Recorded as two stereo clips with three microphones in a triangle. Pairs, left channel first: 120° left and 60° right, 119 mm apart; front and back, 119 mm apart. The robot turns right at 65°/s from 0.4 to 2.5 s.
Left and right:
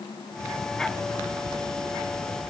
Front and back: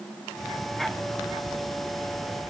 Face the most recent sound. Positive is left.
No sound to turn to.